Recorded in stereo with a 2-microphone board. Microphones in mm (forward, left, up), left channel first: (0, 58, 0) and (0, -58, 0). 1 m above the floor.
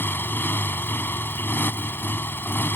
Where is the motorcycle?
15° left (ahead or behind).